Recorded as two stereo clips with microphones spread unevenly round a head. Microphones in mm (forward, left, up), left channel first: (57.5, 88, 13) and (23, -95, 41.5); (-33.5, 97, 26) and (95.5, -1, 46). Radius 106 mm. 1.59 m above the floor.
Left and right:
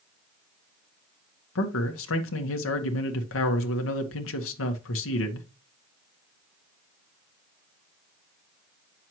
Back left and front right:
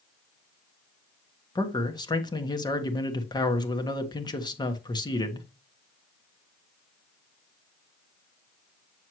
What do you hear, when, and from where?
1.6 s a man speaking: 75° left, 1.4 m